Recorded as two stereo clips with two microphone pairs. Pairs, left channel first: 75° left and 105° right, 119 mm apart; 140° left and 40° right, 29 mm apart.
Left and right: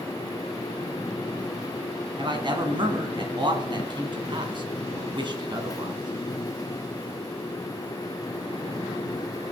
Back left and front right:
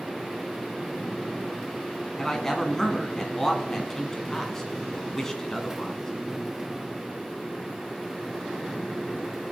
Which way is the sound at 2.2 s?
150° right.